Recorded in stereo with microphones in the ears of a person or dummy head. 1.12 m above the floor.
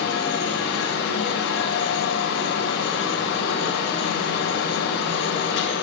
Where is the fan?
65° left (ahead or behind), 7.5 m.